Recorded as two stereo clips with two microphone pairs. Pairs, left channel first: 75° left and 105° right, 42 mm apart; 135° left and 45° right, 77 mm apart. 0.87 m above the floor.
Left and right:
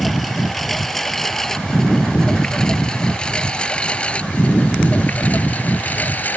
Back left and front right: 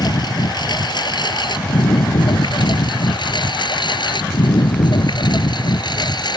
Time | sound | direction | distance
0.0 | a lawn mower | 160° left | ?